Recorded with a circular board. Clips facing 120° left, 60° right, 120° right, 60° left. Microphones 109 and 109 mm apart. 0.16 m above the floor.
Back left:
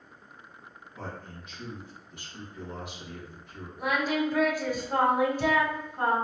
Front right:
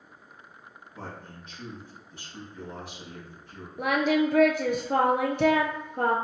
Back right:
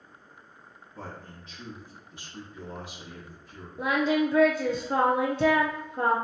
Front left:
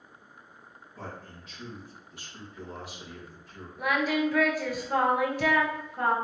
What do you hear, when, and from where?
0.9 s a man speaking: 85° right, 1.5 m
3.8 s singing: 60° right, 0.6 m